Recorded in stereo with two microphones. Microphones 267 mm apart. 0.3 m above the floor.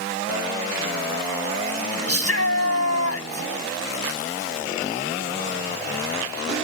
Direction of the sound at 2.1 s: 60° left (ahead or behind).